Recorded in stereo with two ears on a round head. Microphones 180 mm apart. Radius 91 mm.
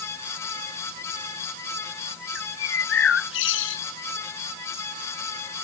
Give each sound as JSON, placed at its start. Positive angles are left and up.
{"t": 2.4, "sound": "a bird", "side_deg": 75}